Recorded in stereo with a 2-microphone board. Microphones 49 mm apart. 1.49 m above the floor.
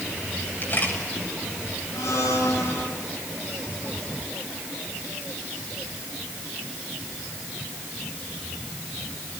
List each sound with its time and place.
0.6 s a camera shutter: 40° left (ahead or behind), 8 m
1.9 s a blender: 80° left, 6 m